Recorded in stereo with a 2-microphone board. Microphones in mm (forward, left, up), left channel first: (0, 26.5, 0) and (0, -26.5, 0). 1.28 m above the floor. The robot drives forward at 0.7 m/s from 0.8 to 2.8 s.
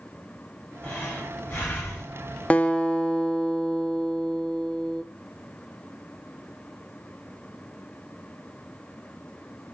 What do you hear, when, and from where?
0.8 s breathing: 40° left (ahead or behind), 4.5 m; by 2.2 s 50° left (ahead or behind), 3.5 m
2.5 s a guitar: 25° left (ahead or behind), 0.5 m; by 5.0 s 20° left (ahead or behind), 0.7 m